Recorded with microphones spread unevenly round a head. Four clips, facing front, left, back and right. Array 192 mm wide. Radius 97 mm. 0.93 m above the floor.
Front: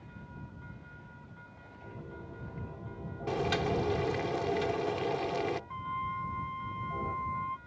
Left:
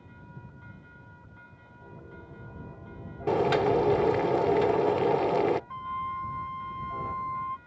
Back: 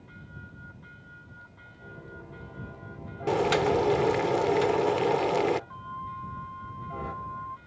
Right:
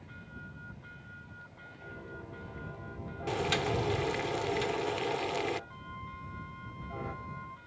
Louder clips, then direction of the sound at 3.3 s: Left 9 dB, back 7 dB; 130° left.